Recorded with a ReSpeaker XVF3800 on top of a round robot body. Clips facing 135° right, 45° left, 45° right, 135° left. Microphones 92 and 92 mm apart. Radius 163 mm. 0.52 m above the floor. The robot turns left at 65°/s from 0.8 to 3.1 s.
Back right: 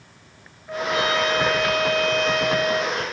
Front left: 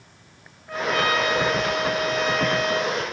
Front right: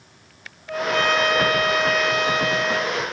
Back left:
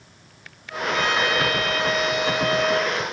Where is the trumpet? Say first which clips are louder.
Even, front right 2 dB; 55° right, 2.5 m; by 3.0 s 165° left, 2.5 m.